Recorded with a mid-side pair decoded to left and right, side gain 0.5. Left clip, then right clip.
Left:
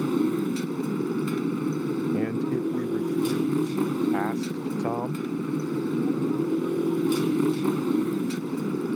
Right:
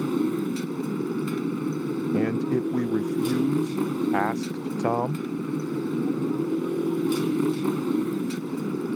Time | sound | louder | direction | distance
0.0 | a motorcycle | left 1 dB | 5° left | ?
2.1 | a man speaking | right 2 dB | 35° right | ?